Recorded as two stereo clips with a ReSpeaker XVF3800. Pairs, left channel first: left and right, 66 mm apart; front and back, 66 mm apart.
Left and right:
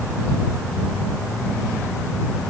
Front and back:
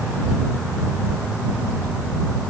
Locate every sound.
Only background noise.